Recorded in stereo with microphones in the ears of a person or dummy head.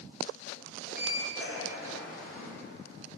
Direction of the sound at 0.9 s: Centre (ahead or behind).